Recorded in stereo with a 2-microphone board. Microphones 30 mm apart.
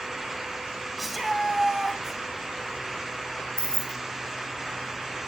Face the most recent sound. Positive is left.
turn(degrees=30)  # may be behind; listen again after turning